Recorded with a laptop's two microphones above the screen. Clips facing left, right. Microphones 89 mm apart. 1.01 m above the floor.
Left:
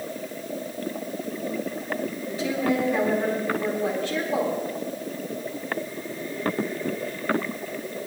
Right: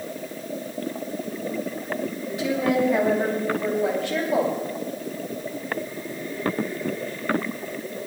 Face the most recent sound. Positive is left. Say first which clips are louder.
# right 2 dB
turn(degrees=-65)  # may be behind; listen again after turning